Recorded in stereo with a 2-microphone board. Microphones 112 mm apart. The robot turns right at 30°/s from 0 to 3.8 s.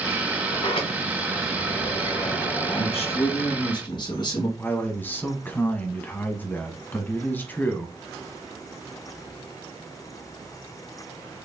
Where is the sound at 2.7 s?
100° left, 2 m; by 4.5 s 135° left, 2 m.